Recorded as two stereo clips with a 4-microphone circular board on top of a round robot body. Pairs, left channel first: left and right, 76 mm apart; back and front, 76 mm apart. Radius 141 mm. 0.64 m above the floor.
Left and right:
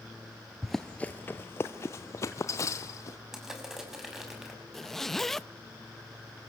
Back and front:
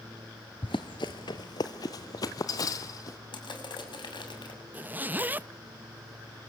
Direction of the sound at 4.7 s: 10° left.